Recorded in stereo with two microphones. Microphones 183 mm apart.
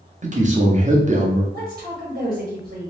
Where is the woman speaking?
55° right (ahead or behind), 1.0 m.